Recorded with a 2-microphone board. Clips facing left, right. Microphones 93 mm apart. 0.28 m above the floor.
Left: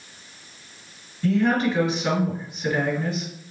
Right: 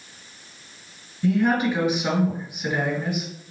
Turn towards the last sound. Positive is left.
turn(degrees=-15)  # may be behind; listen again after turning